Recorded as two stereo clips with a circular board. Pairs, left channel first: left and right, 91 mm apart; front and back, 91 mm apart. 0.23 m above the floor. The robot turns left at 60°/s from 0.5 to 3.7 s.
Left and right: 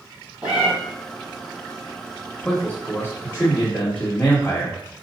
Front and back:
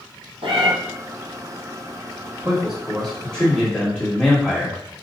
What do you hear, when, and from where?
0.4 s a cat meowing: 165° right, 2.5 m; by 0.7 s 175° right, 2.5 m
2.4 s a man speaking: 125° left, 1.6 m; by 4.8 s 50° left, 1.6 m